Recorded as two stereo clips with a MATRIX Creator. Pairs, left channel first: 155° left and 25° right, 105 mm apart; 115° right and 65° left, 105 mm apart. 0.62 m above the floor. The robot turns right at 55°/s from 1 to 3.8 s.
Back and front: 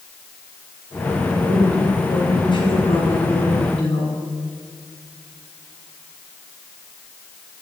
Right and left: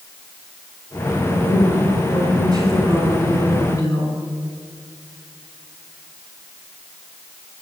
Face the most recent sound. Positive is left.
turn(degrees=-170)